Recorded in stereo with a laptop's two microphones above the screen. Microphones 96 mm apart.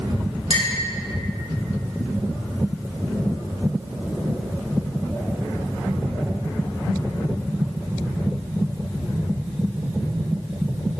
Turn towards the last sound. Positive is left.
turn(degrees=75)  # may be behind; listen again after turning